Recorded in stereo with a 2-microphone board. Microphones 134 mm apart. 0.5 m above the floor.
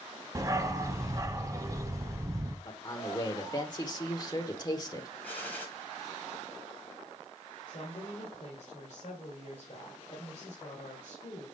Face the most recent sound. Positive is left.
turn(degrees=60)  # may be behind; listen again after turning